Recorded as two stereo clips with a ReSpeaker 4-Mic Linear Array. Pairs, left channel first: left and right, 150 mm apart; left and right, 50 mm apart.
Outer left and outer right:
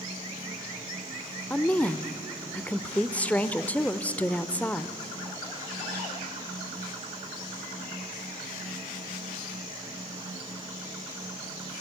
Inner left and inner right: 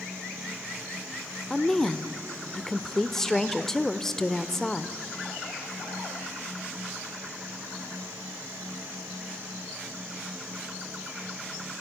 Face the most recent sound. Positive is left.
turn(degrees=10)  # may be behind; listen again after turning